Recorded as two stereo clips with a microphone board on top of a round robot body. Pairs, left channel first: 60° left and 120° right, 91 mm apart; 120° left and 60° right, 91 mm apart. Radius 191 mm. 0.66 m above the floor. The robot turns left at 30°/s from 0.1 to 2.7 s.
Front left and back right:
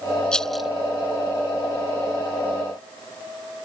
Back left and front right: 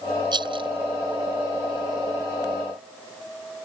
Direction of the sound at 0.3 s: 20° right.